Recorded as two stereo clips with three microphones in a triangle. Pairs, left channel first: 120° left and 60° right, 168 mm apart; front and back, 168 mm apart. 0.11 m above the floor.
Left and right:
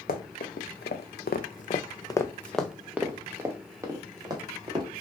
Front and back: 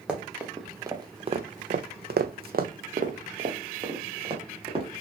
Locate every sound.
0.1 s running footsteps: 95° left, 1.1 m; by 4.8 s 125° right, 1.8 m